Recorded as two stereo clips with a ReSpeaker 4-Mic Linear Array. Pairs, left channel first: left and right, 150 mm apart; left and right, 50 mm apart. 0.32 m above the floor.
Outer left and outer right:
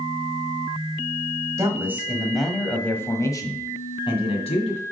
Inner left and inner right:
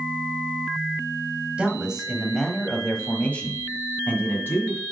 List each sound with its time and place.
1.6 s a man speaking: 20° right (ahead or behind), 1.4 m; by 4.8 s 45° left (ahead or behind), 2 m